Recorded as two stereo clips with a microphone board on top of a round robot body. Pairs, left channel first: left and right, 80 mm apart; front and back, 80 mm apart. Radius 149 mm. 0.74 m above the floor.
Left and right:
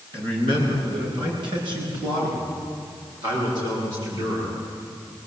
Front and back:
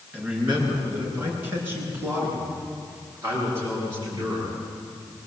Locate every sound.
0.1 s a man speaking: 110° right, 9 m; by 4.6 s 125° right, 12 m